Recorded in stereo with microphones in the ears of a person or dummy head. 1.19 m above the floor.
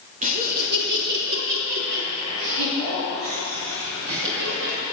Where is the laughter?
35° right (ahead or behind), 2.5 m; by 4.8 s 75° right (ahead or behind), 7.5 m.